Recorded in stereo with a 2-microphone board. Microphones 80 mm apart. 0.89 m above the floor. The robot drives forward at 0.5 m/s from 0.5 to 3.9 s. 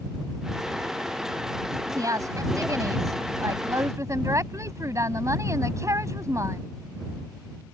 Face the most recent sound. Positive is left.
turn(degrees=-40)  # may be behind; listen again after turning